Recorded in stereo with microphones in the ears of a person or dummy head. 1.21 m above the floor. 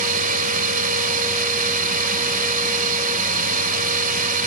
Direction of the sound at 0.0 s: 50° right (ahead or behind).